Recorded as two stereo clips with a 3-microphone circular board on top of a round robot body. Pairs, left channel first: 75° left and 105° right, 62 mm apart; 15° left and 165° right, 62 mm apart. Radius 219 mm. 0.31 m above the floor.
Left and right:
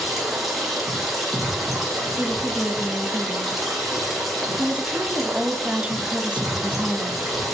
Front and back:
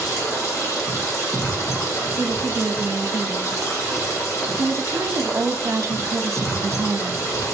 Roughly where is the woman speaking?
Behind.